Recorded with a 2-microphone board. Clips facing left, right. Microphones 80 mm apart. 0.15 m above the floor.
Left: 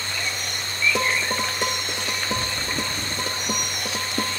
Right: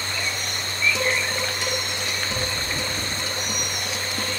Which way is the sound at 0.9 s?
50° left (ahead or behind).